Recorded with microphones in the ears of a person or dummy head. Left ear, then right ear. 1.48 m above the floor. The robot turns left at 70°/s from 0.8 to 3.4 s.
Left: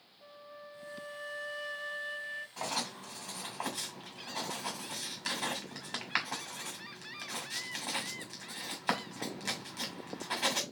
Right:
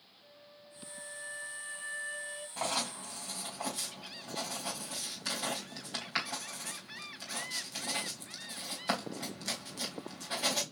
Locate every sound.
0.2 s a flute: 120° left, 0.8 m; by 2.5 s 5° left, 0.8 m
2.6 s writing: 15° right (ahead or behind), 2.0 m; by 10.6 s 35° left (ahead or behind), 2.0 m